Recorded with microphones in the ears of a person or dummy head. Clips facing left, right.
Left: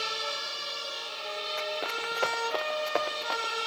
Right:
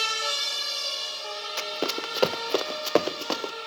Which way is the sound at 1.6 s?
60° right (ahead or behind).